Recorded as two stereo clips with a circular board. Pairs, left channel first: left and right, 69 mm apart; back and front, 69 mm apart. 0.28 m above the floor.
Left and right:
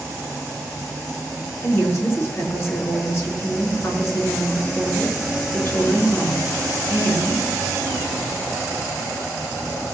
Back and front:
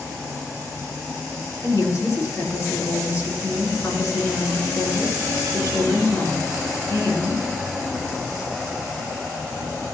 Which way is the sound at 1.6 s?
135° left.